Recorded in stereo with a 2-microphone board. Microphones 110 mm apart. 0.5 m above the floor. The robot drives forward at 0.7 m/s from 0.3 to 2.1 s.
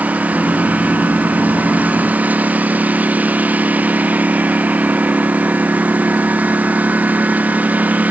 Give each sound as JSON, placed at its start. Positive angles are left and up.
{"t": 0.0, "sound": "a lawn mower", "side_deg": -15}